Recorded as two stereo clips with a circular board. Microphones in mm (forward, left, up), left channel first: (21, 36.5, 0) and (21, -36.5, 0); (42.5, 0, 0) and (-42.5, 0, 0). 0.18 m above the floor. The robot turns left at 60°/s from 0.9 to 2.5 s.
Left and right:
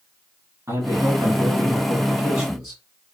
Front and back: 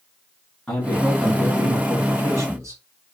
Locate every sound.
0.7 s a man speaking: 80° right, 2.0 m; by 2.8 s 175° right, 2.0 m